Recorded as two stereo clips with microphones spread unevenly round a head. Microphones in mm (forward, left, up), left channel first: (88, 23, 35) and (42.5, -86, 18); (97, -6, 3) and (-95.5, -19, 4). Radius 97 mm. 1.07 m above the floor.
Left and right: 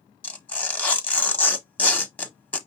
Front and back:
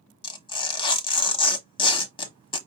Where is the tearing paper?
30° left, 1.0 m.